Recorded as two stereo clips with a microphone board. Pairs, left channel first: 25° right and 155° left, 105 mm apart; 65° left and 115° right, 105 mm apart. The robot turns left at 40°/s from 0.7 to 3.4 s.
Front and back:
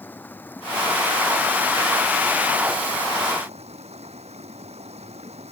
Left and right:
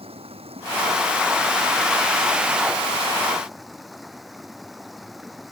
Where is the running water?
95° right; by 5.5 s 160° left.